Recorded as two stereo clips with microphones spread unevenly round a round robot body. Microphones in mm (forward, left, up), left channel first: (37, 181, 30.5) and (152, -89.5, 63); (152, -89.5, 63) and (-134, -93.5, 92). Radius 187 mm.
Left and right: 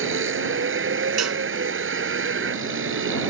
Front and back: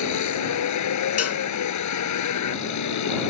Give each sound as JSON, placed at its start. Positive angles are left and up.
{"t": 0.0, "sound": "a vehicle", "azimuth_deg": -20}
{"t": 1.2, "sound": "a cowbell", "azimuth_deg": -35}